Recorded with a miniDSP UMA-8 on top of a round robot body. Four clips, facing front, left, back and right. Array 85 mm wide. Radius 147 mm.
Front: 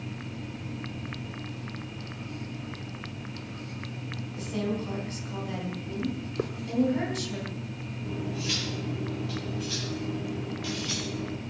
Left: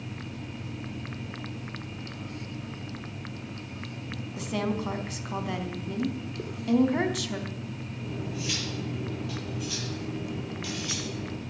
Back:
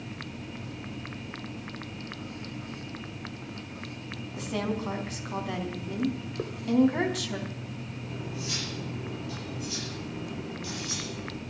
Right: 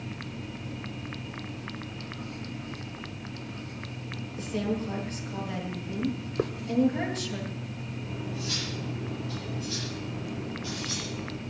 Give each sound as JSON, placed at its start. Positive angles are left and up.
{"t": 4.4, "sound": "a woman speaking", "azimuth_deg": 125, "distance_m": 4.0}
{"t": 6.4, "sound": "a hiss", "azimuth_deg": -65, "distance_m": 1.2}
{"t": 8.1, "sound": "cutlery clinking", "azimuth_deg": 40, "distance_m": 6.0}